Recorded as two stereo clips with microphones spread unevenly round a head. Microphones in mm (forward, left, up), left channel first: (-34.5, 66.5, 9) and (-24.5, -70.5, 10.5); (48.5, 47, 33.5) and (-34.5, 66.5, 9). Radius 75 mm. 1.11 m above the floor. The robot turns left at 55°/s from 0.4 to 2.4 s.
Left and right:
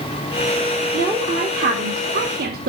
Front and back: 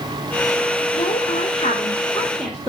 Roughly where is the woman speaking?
Ahead.